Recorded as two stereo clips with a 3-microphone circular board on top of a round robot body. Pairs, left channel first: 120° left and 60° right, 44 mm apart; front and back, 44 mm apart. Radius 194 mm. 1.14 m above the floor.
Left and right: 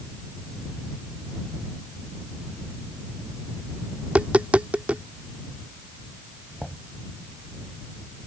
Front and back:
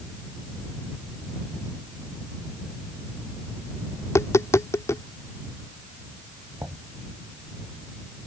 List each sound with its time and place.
4.0 s tapping: 5° left
6.6 s knocking: 150° right